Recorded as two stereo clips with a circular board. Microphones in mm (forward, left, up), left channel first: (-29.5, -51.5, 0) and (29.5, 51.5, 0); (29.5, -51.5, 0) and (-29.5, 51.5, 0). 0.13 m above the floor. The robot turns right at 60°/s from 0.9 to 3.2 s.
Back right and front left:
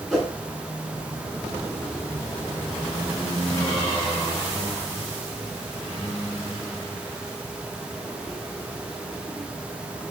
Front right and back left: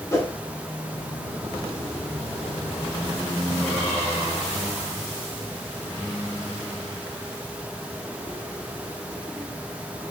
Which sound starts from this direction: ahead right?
A whoosh, at 0.1 s.